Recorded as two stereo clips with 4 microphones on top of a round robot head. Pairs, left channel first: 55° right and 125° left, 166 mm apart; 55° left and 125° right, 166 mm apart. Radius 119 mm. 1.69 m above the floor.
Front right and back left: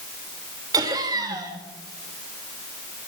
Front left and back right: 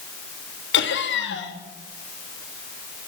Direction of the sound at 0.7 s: 60° left.